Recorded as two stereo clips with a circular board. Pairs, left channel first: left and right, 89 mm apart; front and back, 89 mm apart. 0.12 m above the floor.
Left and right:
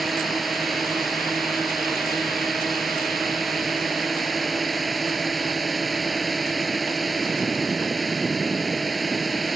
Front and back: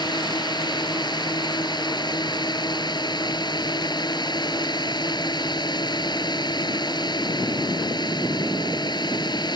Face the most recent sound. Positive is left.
turn(degrees=0)